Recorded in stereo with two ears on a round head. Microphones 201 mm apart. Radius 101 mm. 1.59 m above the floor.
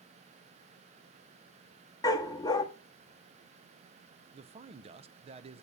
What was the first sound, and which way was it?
A dog barking, 15° left (ahead or behind).